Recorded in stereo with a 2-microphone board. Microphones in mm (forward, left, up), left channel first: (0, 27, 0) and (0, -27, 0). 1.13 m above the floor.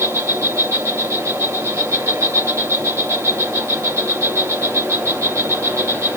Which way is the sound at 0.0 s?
65° right (ahead or behind).